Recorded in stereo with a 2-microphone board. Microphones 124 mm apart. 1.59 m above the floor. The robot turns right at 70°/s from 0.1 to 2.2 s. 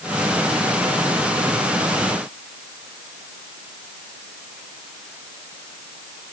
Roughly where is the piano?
I don't hear a piano.